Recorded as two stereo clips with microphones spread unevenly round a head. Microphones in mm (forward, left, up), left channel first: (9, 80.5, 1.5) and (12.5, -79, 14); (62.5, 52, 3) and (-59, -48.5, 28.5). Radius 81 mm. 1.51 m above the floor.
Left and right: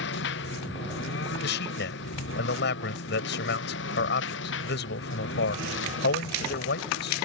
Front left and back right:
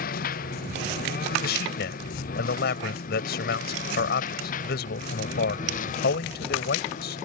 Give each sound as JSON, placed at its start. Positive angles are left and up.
{"t": 0.0, "sound": "a lawn mower", "azimuth_deg": 75}
{"t": 1.4, "sound": "a man speaking", "azimuth_deg": 70}